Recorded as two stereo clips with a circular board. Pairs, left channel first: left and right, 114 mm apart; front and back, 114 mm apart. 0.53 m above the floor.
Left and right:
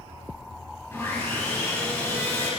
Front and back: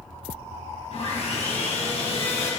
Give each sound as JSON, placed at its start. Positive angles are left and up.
{"t": 0.9, "sound": "sawing", "azimuth_deg": 25, "distance_m": 4.5}